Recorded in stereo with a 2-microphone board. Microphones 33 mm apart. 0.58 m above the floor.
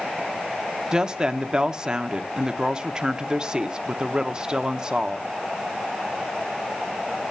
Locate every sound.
0.9 s a woman speaking: 25° right (ahead or behind), 0.8 m